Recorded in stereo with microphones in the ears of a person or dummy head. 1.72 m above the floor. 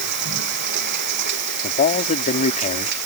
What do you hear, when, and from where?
0.0 s running water: 50° right (ahead or behind)
1.6 s a man speaking: 40° left (ahead or behind)